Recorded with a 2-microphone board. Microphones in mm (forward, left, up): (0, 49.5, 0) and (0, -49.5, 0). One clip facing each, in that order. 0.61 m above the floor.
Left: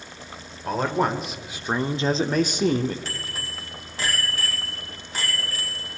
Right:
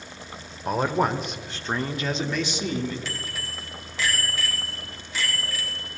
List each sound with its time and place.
0.7 s a man speaking: 10° right (ahead or behind), 1.8 m; by 3.0 s 65° left (ahead or behind), 1.2 m
3.0 s a bicycle bell: 45° left (ahead or behind), 3.5 m